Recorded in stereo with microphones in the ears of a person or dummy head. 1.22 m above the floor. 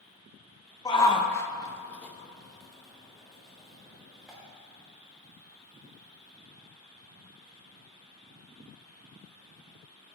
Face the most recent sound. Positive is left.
turn(degrees=-5)  # may be behind; listen again after turning